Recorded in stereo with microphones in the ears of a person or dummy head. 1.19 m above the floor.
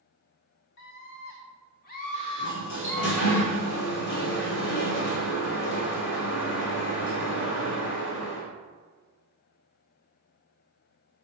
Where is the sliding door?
65° left (ahead or behind), 2 m.